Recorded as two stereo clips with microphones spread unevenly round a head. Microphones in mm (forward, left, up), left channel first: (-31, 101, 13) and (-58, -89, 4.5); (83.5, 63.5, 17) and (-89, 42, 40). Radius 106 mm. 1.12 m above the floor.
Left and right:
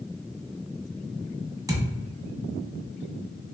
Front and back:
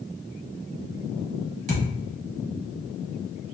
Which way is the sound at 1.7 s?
165° right.